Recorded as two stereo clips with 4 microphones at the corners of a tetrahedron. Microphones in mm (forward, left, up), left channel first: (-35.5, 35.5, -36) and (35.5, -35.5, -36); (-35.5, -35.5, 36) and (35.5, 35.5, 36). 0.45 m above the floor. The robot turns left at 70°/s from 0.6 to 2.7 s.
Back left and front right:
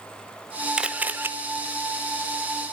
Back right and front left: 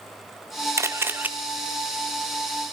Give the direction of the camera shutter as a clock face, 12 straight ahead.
11 o'clock.